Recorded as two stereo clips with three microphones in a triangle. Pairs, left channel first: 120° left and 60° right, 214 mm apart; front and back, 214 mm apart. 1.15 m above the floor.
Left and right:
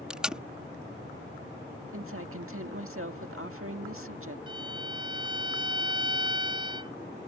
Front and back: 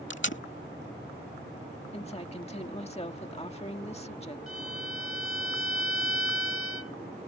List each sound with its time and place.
0.1 s tape being pulled: 25° left
1.9 s a woman speaking: 60° right
4.5 s a violin: 10° left